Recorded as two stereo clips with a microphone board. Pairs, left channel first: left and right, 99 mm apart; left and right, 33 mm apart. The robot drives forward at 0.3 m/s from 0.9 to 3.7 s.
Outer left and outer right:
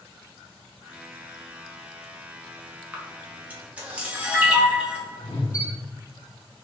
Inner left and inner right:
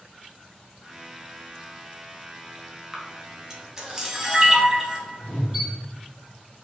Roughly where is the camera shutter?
Centre.